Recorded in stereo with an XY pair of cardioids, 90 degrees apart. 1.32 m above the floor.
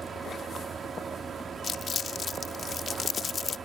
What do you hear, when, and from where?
0.0 s a fan: 50° right
1.6 s crumpling: 55° left